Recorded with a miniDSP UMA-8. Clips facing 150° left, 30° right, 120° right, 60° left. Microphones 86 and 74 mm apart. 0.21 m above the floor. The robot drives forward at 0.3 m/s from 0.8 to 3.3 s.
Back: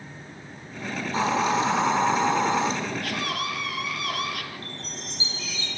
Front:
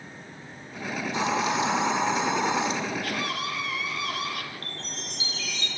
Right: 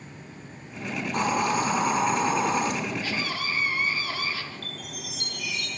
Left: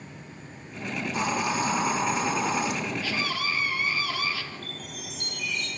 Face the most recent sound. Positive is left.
turn(degrees=-140)